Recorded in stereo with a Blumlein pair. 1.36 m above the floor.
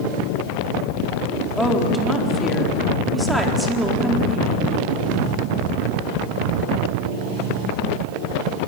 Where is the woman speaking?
Straight ahead, 4 m.